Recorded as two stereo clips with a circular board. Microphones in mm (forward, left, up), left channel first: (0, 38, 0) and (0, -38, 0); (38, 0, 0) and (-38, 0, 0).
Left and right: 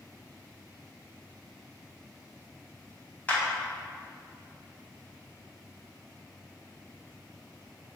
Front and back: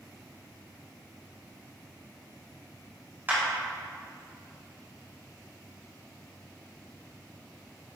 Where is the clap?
145° left, 1.4 m.